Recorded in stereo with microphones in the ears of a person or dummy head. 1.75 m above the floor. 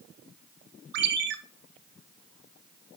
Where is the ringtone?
55° right (ahead or behind), 1.2 m.